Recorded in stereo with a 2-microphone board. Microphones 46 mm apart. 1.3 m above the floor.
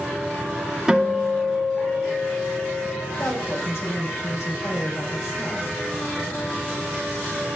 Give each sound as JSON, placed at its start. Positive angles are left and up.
{"t": 0.9, "sound": "a guitar", "side_deg": -15, "distance_m": 3.0}
{"t": 3.2, "sound": "a woman speaking", "side_deg": 70, "distance_m": 5.0}